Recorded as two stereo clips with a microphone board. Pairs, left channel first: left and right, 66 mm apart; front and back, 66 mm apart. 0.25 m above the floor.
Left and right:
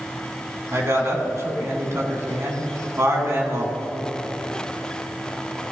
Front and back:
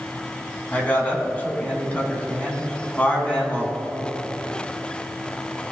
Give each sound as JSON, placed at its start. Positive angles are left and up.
{"t": 0.7, "sound": "a man speaking", "azimuth_deg": -60, "distance_m": 2.0}